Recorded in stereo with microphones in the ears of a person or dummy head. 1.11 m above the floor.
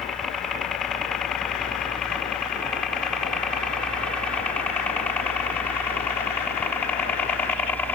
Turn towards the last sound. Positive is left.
turn(degrees=10)  # may be behind; listen again after turning